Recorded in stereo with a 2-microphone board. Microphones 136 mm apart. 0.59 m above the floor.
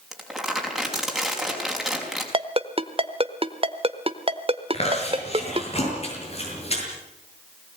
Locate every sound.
0.1 s crumpling: centre (ahead or behind), 5 m
2.3 s a ringtone: 45° right (ahead or behind), 1.1 m
4.7 s chewing: 50° left (ahead or behind), 8 m